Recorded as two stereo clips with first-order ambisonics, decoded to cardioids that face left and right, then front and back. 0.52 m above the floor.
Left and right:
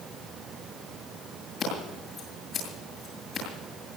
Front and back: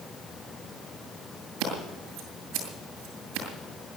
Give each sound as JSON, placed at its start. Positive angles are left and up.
{"t": 1.6, "sound": "scissors", "azimuth_deg": 155, "distance_m": 7.5}